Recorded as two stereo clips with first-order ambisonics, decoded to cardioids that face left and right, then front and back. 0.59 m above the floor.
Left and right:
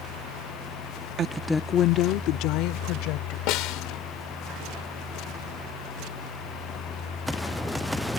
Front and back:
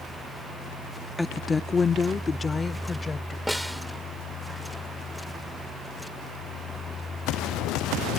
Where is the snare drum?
90° left.